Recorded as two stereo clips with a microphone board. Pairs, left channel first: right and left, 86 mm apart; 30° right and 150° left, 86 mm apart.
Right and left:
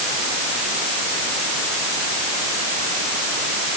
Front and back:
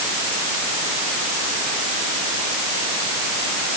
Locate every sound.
Only background noise.